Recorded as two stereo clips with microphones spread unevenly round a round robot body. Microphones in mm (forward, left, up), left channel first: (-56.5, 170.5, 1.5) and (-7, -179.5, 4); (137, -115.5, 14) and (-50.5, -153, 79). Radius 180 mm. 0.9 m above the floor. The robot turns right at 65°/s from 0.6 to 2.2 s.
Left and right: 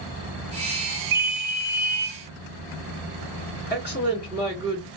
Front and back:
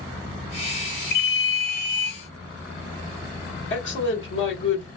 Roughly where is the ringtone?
Ahead.